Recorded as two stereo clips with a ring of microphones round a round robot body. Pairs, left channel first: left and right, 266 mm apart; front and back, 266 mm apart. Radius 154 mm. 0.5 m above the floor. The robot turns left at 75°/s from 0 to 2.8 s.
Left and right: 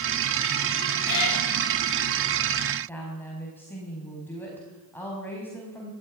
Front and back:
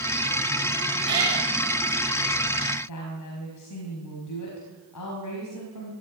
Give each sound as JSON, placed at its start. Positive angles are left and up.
{"t": 1.1, "sound": "a cat meowing", "azimuth_deg": 130, "distance_m": 8.0}
{"t": 2.9, "sound": "a woman speaking", "azimuth_deg": 10, "distance_m": 5.0}